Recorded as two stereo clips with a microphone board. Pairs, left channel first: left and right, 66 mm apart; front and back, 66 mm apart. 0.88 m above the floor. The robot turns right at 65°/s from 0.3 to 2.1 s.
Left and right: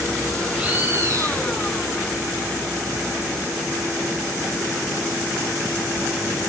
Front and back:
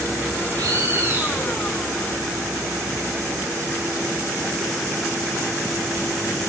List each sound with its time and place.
0.6 s a bird: 165° right, 1.8 m; by 1.5 s 105° right, 1.8 m